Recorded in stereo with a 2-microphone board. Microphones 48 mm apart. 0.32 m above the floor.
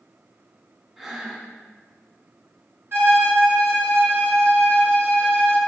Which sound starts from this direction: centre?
Breathing, at 1.0 s.